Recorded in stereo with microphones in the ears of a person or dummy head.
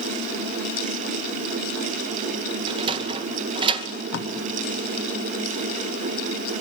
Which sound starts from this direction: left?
Tape being pulled, at 4.1 s.